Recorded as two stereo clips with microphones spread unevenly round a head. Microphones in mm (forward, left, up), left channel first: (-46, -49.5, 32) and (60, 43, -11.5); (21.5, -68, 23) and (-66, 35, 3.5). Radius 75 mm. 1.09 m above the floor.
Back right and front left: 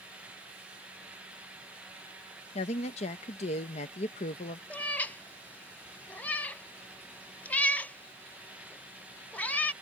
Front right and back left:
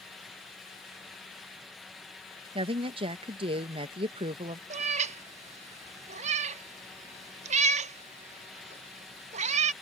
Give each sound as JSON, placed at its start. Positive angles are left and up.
{"t": 2.5, "sound": "a woman speaking", "azimuth_deg": 170}
{"t": 4.7, "sound": "a cat meowing", "azimuth_deg": 160}